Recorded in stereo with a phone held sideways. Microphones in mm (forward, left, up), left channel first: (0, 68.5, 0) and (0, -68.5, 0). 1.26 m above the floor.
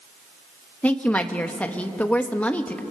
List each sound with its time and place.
0.8 s a woman speaking: 10° left (ahead or behind), 1.3 m